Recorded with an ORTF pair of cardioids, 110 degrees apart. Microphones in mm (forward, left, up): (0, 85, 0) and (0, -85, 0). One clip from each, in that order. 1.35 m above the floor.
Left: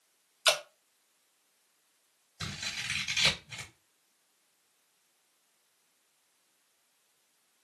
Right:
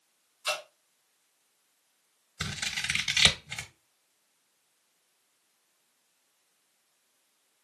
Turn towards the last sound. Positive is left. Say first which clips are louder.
# right 4 dB
turn(degrees=-50)